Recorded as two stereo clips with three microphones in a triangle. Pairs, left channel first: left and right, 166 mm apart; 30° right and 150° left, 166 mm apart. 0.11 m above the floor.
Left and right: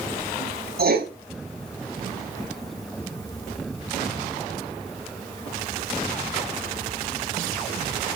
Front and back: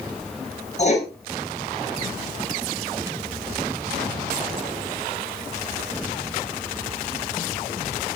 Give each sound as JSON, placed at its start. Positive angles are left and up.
{"t": 0.8, "sound": "writing", "azimuth_deg": -75, "distance_m": 6.0}